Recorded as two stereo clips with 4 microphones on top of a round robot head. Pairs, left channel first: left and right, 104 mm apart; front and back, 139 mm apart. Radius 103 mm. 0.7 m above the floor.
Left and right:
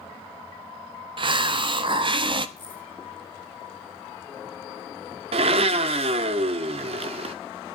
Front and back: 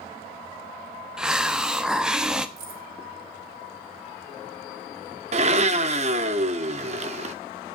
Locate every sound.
1.2 s a hiss: 95° right, 1.0 m
2.6 s keys jangling: 170° left, 3.5 m
5.3 s a blender: 130° right, 0.8 m